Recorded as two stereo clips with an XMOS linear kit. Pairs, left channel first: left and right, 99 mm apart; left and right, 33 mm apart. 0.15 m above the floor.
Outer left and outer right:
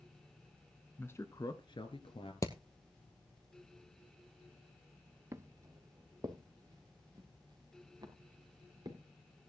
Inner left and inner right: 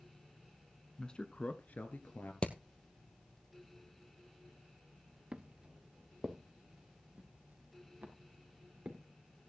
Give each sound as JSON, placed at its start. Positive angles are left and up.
{"t": 1.0, "sound": "a man speaking", "side_deg": 15, "distance_m": 1.1}
{"t": 2.4, "sound": "hammering", "side_deg": 35, "distance_m": 1.2}
{"t": 5.3, "sound": "footsteps", "side_deg": -30, "distance_m": 0.8}